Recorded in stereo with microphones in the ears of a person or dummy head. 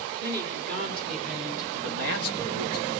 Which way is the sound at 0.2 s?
55° right (ahead or behind).